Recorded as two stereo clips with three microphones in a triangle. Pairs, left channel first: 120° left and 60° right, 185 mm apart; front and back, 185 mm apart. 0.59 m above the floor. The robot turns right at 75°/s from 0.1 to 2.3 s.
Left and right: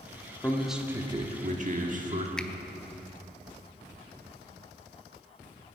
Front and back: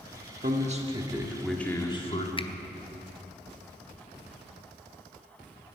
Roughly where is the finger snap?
Ahead left.